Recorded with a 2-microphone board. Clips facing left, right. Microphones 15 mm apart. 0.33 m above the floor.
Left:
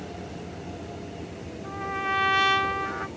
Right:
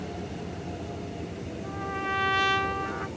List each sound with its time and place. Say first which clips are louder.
1.6 s a trumpet: left 3 dB; 20° left (ahead or behind), 0.5 m